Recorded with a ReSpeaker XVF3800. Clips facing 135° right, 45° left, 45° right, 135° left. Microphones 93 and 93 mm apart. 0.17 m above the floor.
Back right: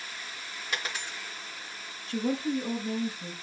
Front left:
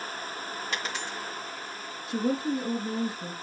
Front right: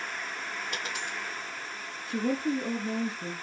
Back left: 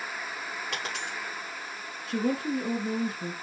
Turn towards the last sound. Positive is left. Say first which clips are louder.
# front left 2 dB, even
turn(degrees=125)